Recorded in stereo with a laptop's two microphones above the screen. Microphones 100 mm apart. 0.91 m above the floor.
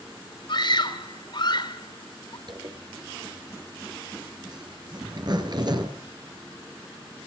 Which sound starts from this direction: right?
A zipper, at 2.5 s.